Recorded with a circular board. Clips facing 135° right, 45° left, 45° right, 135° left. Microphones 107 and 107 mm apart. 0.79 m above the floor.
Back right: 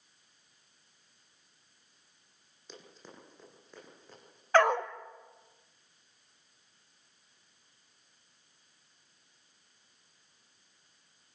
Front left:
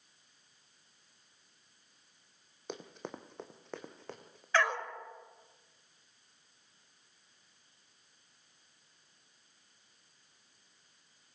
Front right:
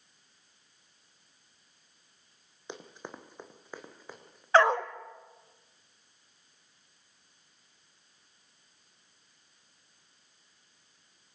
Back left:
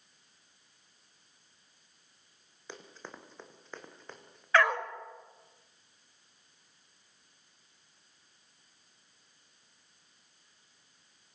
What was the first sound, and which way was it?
Running footsteps, 25° left.